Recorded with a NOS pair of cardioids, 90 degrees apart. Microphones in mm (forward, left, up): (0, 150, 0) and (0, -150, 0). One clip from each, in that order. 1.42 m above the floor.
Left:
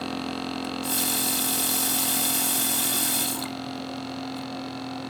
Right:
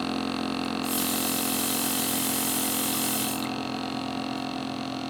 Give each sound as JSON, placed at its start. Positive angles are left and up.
{"t": 0.6, "sound": "a running tap", "azimuth_deg": 35, "distance_m": 1.3}